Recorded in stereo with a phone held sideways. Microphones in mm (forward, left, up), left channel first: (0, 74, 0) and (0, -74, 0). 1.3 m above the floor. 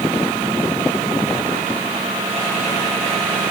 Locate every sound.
Only background noise.